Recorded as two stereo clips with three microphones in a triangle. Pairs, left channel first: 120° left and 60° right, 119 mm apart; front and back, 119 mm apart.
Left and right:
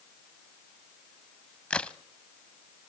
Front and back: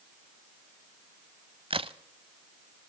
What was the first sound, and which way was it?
A crack, 165° right.